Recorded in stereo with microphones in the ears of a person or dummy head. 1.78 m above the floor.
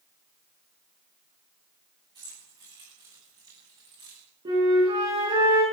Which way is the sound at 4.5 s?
30° right (ahead or behind).